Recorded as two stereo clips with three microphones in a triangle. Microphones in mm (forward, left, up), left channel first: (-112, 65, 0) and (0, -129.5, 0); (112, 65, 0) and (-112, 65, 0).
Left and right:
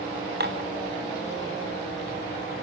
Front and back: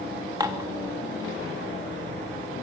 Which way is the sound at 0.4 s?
110° right.